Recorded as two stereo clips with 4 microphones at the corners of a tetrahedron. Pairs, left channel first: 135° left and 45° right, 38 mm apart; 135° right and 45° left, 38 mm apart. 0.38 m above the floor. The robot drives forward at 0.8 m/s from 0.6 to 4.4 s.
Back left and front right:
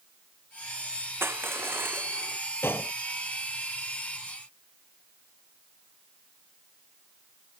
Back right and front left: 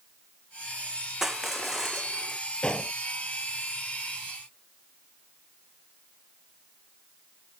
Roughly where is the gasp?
No gasp in this recording.